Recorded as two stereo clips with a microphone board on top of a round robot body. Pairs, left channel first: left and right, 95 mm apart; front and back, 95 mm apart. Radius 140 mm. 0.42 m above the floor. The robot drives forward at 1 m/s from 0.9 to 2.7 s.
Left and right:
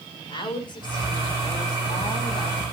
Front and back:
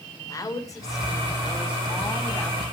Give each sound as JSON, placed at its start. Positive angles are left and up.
{"t": 0.3, "sound": "a woman speaking", "azimuth_deg": 55, "distance_m": 5.5}